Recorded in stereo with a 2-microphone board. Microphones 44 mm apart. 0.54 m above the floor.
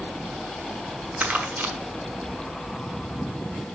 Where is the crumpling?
50° right (ahead or behind), 1.1 m.